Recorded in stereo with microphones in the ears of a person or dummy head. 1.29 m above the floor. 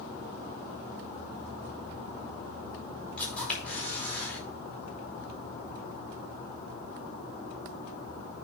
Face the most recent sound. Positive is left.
turn(degrees=10)  # may be behind; listen again after turning